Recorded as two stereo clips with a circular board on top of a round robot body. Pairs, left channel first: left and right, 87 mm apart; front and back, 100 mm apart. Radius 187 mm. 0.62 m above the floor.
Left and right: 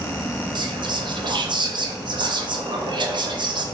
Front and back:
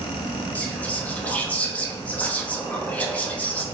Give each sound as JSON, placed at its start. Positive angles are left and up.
{"t": 0.6, "sound": "whispering", "azimuth_deg": -75, "distance_m": 0.9}